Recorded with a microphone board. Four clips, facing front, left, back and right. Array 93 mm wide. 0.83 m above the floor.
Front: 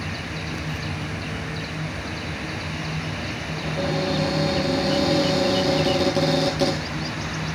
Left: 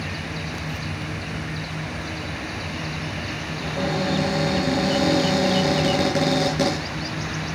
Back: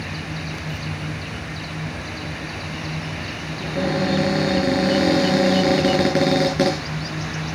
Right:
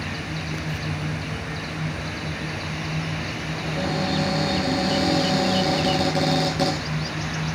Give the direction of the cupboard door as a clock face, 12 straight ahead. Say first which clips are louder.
Left 1 dB, back 3 dB; 6 o'clock.